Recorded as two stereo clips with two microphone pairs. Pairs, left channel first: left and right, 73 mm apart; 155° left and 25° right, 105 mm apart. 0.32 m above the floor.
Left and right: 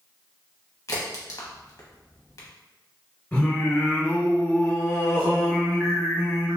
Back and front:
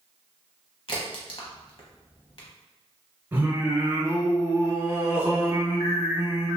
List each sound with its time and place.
0.9 s a crack: 130° left, 0.9 m
3.3 s singing: 40° left, 0.8 m